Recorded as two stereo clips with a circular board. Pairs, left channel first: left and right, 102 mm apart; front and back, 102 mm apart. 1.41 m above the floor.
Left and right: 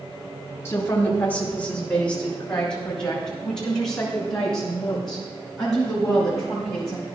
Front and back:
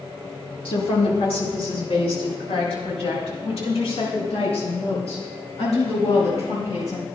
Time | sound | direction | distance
0.7 | a woman speaking | 25° left | 1.8 m